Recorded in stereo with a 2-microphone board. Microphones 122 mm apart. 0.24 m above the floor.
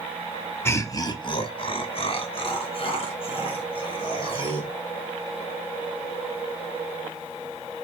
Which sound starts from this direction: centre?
Laughter, at 0.7 s.